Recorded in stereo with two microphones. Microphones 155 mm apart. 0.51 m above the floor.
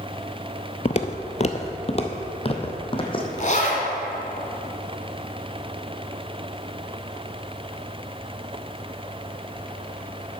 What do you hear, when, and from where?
0.8 s footsteps: 45° left (ahead or behind), 0.6 m; by 3.3 s 35° left (ahead or behind), 1.6 m
3.4 s a zipper: 50° left (ahead or behind), 2.0 m